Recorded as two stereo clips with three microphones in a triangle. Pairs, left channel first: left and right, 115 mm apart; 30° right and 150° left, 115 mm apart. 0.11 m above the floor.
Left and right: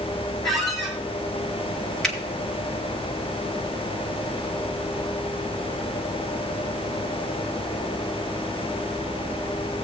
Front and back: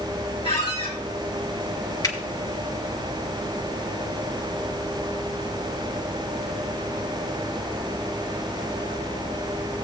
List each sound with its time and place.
0.4 s a squeak: 5° left, 3 m
2.0 s a finger snap: 5° left, 1.9 m